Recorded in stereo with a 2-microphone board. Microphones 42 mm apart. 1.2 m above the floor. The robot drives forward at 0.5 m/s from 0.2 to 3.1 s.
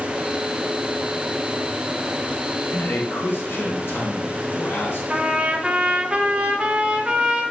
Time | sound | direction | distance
2.7 | a man speaking | 70° left (ahead or behind) | 2 m
5.1 | a trumpet | 25° right (ahead or behind) | 1.0 m